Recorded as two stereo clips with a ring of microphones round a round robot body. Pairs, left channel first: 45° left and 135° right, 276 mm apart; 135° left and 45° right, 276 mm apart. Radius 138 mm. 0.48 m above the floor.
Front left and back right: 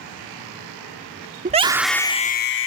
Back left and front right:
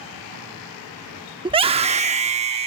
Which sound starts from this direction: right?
A scream, at 1.4 s.